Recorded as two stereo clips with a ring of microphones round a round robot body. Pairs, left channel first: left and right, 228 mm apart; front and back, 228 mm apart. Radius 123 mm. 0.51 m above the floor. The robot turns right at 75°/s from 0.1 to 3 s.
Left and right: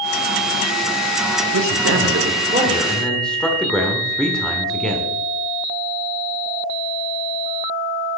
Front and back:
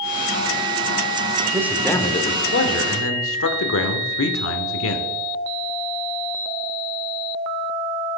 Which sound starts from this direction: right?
A man speaking, at 1.5 s.